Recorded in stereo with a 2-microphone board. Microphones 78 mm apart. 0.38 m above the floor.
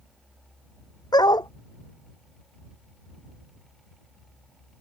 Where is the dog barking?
65° left (ahead or behind).